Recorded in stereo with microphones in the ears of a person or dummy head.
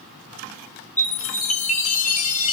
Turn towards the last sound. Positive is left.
turn(degrees=40)  # may be behind; listen again after turning